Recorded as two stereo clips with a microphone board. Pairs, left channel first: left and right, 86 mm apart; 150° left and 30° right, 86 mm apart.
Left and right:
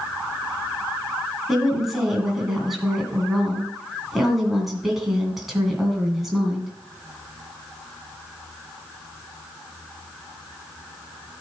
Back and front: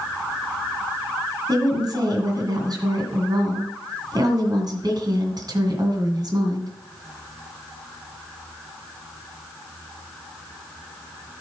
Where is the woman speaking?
Straight ahead, 2.5 m.